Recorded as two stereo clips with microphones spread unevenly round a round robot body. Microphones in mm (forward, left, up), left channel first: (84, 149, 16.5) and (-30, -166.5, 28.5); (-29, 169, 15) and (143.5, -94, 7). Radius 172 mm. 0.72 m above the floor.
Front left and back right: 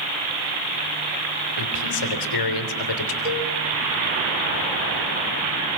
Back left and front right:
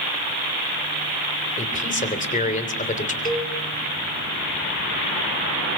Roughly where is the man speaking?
Ahead left.